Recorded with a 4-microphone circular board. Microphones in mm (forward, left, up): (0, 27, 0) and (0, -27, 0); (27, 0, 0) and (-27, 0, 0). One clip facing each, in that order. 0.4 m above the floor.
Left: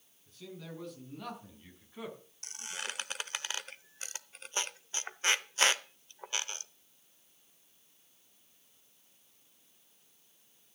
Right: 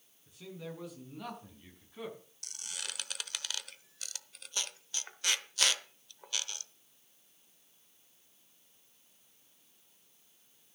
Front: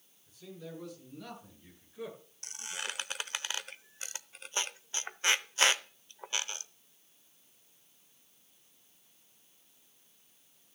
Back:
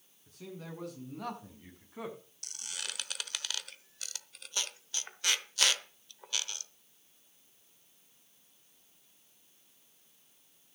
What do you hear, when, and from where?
0.3 s a man speaking: 170° right, 5 m; by 2.2 s 170° left, 4.5 m
2.4 s a squeak: 45° left, 0.8 m